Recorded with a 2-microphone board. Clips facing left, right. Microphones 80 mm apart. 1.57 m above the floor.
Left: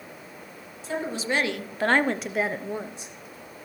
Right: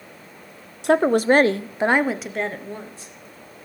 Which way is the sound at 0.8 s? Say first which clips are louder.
Right 13 dB; 70° right (ahead or behind).